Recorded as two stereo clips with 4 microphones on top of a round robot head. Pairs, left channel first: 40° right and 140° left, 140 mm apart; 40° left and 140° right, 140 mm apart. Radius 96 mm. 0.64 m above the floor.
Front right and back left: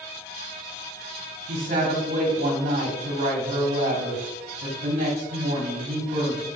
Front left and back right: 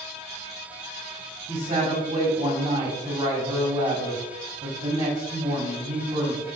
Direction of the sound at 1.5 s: 175° left.